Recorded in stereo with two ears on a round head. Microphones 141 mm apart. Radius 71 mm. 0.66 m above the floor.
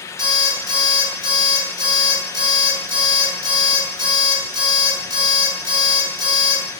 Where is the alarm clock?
30° right (ahead or behind), 1.7 m.